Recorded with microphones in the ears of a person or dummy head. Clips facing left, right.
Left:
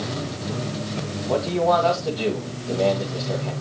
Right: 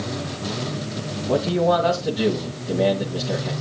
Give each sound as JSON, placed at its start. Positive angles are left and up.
{"t": 1.3, "sound": "a man speaking", "side_deg": -20, "distance_m": 1.7}